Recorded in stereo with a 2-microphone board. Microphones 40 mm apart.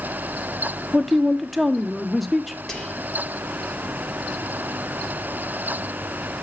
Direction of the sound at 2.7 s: 15° left (ahead or behind).